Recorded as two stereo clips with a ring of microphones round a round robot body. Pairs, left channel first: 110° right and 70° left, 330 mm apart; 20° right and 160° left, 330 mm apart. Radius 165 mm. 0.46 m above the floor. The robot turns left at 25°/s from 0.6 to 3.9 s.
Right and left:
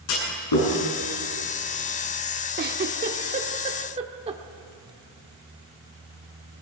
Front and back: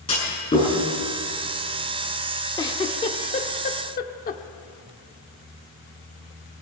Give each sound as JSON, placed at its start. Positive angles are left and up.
{"t": 0.1, "sound": "a clunk", "azimuth_deg": -95, "distance_m": 6.0}
{"t": 2.6, "sound": "a giggle", "azimuth_deg": 45, "distance_m": 0.8}